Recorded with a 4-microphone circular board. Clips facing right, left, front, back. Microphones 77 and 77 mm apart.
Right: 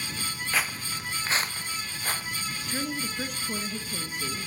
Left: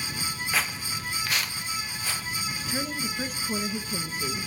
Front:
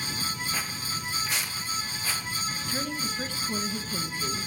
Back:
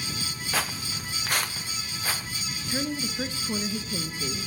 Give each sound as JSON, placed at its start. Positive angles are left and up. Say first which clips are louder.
{"t": 0.5, "sound": "footsteps", "louder": "right 1 dB, back 3 dB", "azimuth_deg": 180, "distance_m": 1.2}
{"t": 2.7, "sound": "a woman speaking", "louder": "even, back 5 dB", "azimuth_deg": 170, "distance_m": 1.5}